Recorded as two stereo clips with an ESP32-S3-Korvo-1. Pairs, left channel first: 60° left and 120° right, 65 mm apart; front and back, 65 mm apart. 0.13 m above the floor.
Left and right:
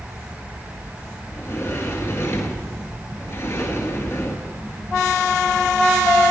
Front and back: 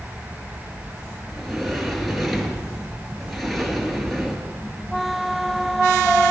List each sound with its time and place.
1.3 s a sliding door: 90° left, 2 m